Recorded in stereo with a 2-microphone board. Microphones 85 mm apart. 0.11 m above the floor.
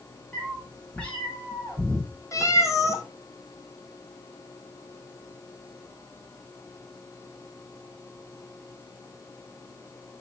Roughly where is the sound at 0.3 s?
Centre.